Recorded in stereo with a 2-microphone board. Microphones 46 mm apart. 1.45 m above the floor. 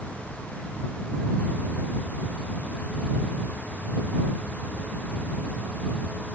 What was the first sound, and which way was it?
Only background noise.